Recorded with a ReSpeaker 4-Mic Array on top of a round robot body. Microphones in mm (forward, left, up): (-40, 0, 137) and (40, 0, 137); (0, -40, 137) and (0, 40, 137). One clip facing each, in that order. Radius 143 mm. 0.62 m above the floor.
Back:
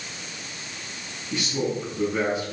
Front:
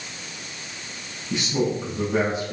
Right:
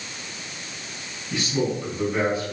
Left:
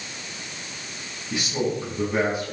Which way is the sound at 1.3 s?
15° left.